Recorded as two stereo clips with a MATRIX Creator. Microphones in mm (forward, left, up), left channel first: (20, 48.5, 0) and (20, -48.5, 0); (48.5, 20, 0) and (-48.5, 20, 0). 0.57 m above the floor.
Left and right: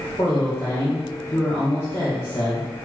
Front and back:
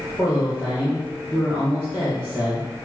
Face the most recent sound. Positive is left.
turn(degrees=135)